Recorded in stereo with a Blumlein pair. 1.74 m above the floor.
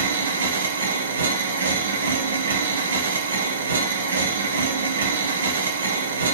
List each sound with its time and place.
0.0 s a machine running: 70° right, 1.4 m